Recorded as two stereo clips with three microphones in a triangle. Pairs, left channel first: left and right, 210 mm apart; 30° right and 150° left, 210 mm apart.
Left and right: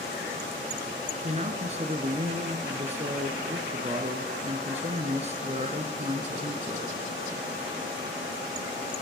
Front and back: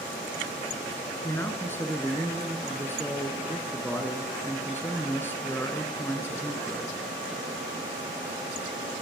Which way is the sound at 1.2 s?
100° right.